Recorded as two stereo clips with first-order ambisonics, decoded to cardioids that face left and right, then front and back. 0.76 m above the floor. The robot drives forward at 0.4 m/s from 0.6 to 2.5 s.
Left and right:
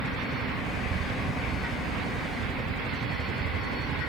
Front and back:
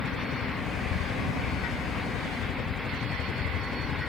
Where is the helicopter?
35° right.